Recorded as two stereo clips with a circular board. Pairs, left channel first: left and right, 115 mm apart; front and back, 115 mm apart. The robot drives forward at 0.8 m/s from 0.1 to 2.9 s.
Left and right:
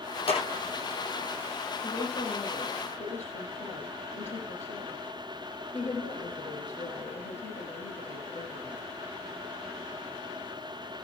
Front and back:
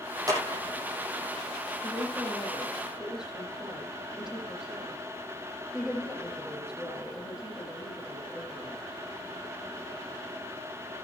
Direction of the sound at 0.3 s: 120° left.